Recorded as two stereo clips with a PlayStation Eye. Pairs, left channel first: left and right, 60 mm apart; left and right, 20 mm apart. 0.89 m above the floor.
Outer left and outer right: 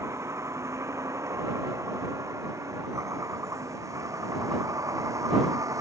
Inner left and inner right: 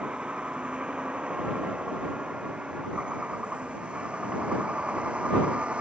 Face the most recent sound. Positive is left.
turn(degrees=-65)  # may be behind; listen again after turning